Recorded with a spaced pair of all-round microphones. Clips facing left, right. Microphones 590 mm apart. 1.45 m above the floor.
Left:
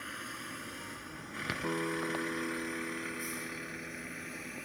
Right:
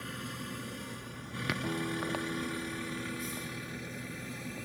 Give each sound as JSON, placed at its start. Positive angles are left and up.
{"t": 0.0, "sound": "a vehicle", "side_deg": -55}
{"t": 1.6, "sound": "a guitar", "side_deg": -10}